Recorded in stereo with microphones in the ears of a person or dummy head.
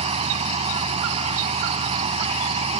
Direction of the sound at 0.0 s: 30° right (ahead or behind).